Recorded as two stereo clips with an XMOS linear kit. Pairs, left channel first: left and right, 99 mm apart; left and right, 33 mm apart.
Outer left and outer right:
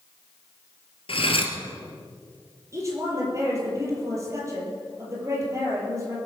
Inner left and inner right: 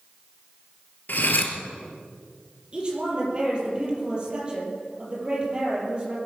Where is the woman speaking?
30° right (ahead or behind), 5 m.